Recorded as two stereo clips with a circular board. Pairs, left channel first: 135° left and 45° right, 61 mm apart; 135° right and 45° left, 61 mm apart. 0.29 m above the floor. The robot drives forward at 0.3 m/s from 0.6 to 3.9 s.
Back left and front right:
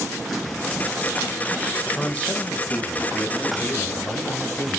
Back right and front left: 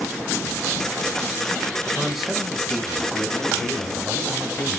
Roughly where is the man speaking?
Behind left.